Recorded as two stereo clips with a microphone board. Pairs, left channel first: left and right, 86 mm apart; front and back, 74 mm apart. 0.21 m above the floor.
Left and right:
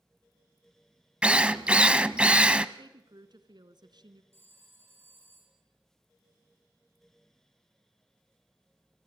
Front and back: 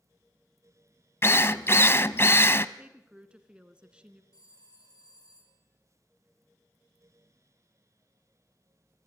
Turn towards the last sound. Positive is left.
turn(degrees=-30)